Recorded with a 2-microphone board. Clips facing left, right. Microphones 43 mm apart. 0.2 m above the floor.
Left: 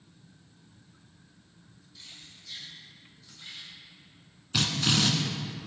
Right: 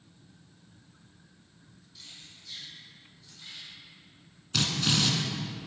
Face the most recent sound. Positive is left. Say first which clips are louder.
# left 1 dB
turn(degrees=15)  # may be behind; listen again after turning